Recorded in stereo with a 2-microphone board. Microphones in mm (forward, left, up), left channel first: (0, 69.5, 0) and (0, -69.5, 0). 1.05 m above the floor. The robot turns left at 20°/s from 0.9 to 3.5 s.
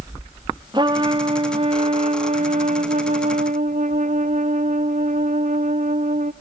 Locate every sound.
0.7 s a trumpet: 35° right, 0.6 m; by 6.3 s 90° right, 0.6 m